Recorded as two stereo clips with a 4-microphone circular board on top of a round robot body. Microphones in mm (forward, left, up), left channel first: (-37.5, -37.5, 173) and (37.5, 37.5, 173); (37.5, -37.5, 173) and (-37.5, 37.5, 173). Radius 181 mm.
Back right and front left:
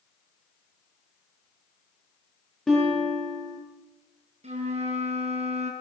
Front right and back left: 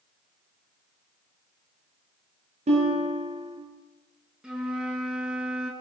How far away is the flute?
About 5.5 m.